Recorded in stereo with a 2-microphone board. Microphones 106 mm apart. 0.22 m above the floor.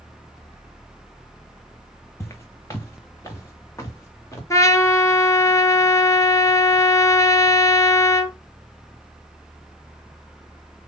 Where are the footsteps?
30° left (ahead or behind), 1.1 m.